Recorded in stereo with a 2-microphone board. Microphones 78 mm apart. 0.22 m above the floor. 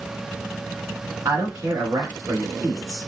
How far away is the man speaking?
About 1.9 m.